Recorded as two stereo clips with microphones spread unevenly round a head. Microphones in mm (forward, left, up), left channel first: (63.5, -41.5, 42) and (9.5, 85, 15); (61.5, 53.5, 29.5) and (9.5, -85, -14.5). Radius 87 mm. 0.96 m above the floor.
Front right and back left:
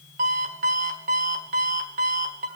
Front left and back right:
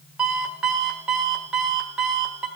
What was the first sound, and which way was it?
An alarm clock, 160° left.